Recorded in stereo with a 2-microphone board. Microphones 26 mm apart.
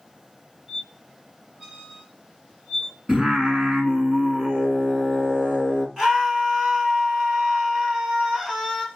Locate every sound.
0.7 s a squeak: 30° right (ahead or behind), 1.1 m
3.1 s singing: 10° right (ahead or behind), 2 m
6.0 s a scream: 25° right (ahead or behind), 1.2 m